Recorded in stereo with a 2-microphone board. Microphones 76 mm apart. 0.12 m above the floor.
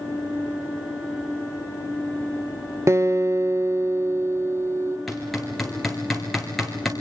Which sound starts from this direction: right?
A guitar, at 2.9 s.